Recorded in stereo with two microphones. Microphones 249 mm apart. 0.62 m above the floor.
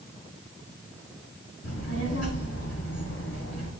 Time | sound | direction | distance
1.6 | a child speaking | 85° left | 3 m